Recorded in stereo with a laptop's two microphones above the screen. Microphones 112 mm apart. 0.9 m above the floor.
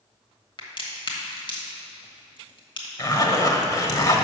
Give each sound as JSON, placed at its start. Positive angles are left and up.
{"t": 0.6, "sound": "a crack", "side_deg": 45, "distance_m": 1.3}
{"t": 3.0, "sound": "a zipper", "side_deg": 30, "distance_m": 0.7}